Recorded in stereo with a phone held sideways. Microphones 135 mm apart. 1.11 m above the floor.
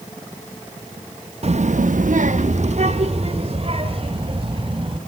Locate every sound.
1.4 s a child speaking: 50° right (ahead or behind), 0.9 m; by 5.0 s 35° right (ahead or behind), 4 m